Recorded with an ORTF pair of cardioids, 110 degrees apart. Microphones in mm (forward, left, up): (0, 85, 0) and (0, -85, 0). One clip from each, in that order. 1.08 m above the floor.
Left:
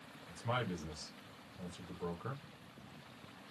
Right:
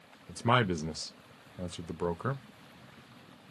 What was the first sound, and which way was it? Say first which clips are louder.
A man speaking: right 11 dB; 60° right.